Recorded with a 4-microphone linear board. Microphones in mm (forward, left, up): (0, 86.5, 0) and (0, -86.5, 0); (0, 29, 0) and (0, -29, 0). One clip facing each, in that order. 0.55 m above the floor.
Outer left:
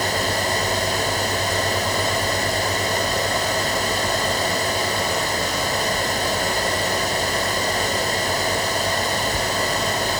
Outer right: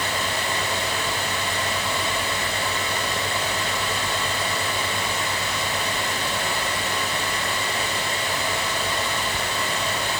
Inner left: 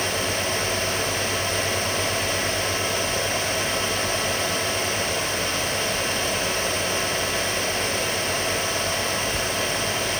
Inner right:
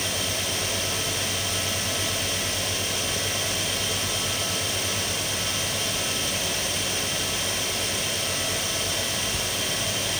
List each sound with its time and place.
Only background noise.